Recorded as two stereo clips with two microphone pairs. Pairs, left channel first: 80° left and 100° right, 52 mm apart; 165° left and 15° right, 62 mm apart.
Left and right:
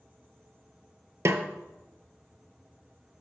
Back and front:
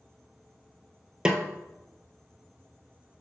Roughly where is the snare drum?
Right.